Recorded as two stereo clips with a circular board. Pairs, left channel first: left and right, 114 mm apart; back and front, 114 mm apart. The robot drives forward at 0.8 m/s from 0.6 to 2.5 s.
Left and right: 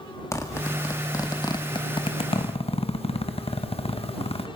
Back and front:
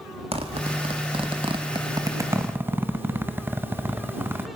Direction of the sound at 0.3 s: 25° left.